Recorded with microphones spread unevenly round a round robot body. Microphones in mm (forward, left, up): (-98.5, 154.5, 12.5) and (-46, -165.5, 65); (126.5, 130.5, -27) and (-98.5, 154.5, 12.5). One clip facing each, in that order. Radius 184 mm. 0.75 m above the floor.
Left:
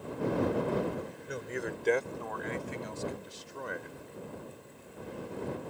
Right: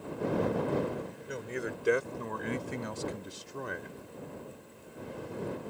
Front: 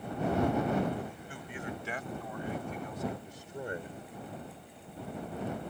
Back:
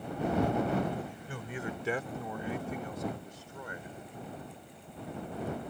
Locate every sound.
1.3 s a man speaking: 175° right; by 4.0 s 70° right